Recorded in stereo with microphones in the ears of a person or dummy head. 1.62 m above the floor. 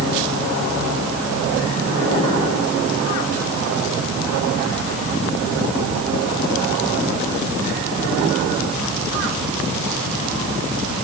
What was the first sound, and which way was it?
Only background noise.